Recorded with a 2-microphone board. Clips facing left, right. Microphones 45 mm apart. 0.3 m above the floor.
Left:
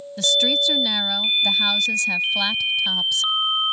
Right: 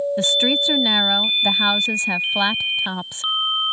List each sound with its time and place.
0.2 s a woman speaking: 30° right (ahead or behind)